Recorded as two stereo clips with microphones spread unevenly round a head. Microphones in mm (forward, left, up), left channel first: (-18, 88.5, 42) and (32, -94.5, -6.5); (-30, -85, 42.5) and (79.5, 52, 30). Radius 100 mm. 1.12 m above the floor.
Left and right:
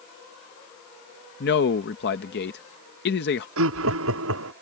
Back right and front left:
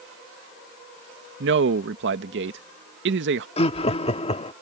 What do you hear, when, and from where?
1.4 s a man speaking: 65° left
3.6 s laughter: 70° right